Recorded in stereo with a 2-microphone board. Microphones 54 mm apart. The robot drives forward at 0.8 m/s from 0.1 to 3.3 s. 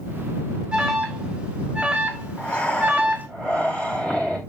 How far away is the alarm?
About 3 m.